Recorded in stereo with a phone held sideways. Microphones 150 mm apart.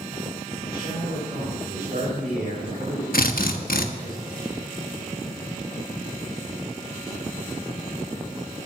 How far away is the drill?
About 1.1 m.